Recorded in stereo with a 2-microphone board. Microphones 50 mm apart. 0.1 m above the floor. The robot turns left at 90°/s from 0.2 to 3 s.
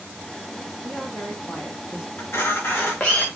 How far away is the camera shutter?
About 3.5 m.